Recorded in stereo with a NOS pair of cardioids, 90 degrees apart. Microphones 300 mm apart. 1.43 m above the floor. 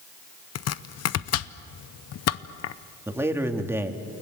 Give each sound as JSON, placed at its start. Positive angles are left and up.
{"t": 0.6, "sound": "chopping", "azimuth_deg": 55, "distance_m": 0.9}
{"t": 3.1, "sound": "a man speaking", "azimuth_deg": -10, "distance_m": 2.5}